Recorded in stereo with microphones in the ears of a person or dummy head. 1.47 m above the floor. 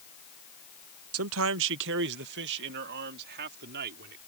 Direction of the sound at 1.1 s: 70° right (ahead or behind).